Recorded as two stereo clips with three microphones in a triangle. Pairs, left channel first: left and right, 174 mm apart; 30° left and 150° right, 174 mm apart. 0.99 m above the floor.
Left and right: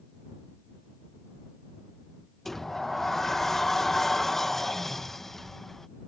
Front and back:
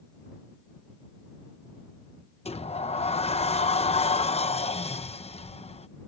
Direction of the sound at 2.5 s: Straight ahead.